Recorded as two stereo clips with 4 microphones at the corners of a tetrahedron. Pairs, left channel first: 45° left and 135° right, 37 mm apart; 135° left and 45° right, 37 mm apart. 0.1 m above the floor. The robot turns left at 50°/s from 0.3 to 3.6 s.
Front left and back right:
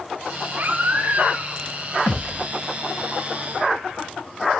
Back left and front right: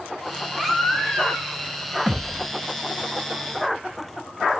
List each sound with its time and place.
0.6 s a baby crying: 130° right, 1.6 m; by 1.5 s 175° right, 1.6 m
2.1 s a thud: 30° left, 2.5 m; by 2.5 s 10° left, 2.5 m